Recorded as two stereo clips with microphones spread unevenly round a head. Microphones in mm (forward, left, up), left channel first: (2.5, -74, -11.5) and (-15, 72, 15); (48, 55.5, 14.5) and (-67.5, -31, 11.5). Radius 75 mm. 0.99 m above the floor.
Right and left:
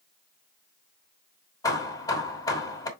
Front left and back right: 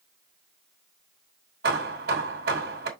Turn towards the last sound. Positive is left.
turn(degrees=-150)